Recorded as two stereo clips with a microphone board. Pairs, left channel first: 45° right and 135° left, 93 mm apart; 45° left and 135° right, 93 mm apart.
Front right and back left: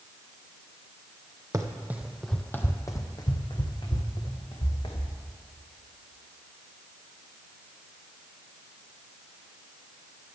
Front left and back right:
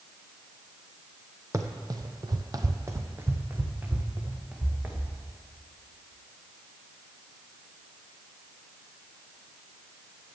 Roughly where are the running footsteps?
Behind.